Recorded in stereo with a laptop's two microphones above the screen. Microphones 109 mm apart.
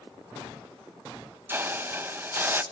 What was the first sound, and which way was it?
A hiss, 20° right (ahead or behind).